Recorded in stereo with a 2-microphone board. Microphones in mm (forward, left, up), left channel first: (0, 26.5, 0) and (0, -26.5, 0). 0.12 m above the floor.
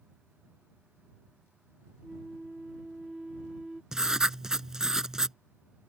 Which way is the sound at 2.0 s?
10° right (ahead or behind).